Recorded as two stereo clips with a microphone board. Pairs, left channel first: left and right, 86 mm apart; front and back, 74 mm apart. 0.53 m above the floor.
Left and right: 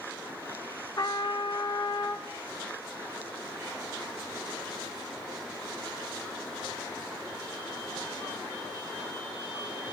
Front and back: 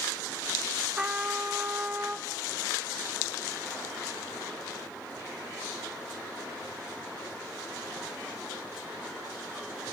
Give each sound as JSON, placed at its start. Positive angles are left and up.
{"t": 1.0, "sound": "a trumpet", "azimuth_deg": 110, "distance_m": 0.6}